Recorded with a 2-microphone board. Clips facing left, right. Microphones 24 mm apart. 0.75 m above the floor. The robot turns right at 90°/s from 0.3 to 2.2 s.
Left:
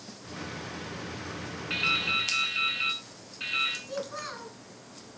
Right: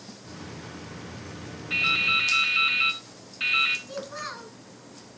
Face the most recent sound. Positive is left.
turn(degrees=-5)  # may be behind; listen again after turning